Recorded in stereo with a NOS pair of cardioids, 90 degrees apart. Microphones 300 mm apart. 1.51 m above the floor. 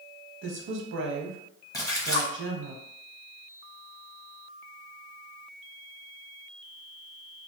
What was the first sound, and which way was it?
A woman speaking, 40° right.